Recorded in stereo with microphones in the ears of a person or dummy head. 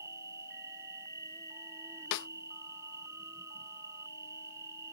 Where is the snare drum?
60° left (ahead or behind).